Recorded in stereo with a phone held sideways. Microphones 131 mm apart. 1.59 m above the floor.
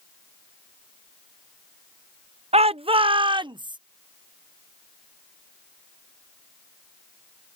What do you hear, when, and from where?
2.5 s a shout: 55° right (ahead or behind); by 3.8 s 35° right (ahead or behind)